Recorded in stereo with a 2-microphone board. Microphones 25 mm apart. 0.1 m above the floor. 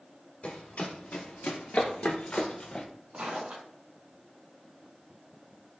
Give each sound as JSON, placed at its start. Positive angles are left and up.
{"t": 0.4, "sound": "running footsteps", "side_deg": 80, "distance_m": 1.6}
{"t": 3.1, "sound": "footsteps", "side_deg": -60, "distance_m": 2.0}